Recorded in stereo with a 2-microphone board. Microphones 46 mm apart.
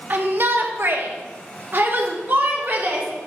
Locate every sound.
0.1 s a shout: 40° right (ahead or behind), 1.0 m; by 3.1 s 45° right (ahead or behind), 2 m